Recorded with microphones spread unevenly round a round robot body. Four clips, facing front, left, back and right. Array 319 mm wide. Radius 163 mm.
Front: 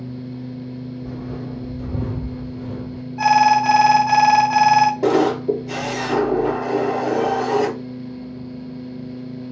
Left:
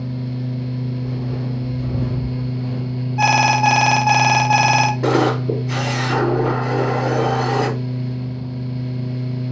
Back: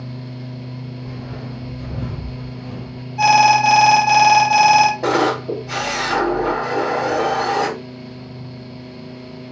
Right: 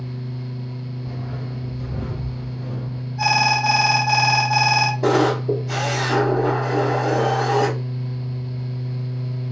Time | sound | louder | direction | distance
1.0 | footsteps | left 6 dB, front 2 dB | 55° left | 1.5 m
3.2 | an alarm | left 4 dB, back 2 dB | 100° left | 0.7 m
5.0 | a camera shutter | left 1 dB, front 1 dB | 10° left | 2.5 m